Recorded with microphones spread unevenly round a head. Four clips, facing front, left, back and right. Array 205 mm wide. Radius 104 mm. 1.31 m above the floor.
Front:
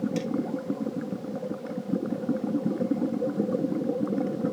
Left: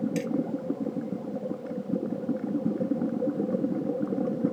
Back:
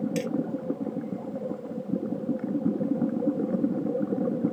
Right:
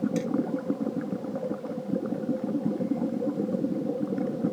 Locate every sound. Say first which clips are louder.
0.2 s hammering: right 1 dB, back 1 dB; 135° left